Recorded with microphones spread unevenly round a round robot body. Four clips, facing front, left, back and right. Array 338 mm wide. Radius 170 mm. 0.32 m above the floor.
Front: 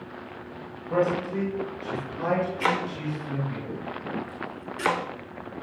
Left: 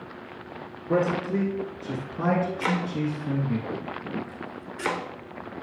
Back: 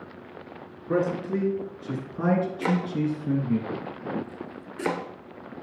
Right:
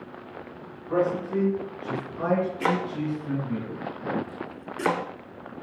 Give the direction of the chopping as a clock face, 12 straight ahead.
4 o'clock.